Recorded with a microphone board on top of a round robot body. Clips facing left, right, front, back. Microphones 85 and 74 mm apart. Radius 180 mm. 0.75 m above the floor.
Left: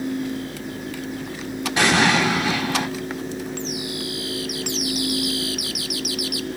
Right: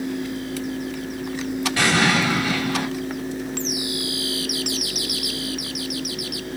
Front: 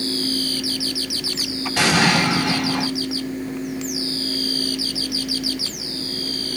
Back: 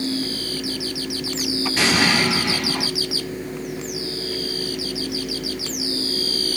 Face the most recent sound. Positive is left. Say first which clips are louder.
# left 2 dB, front 3 dB
turn(degrees=20)